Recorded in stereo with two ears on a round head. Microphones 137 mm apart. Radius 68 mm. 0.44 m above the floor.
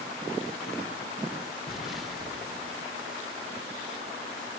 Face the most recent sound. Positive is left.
turn(degrees=0)  # may be behind; listen again after turning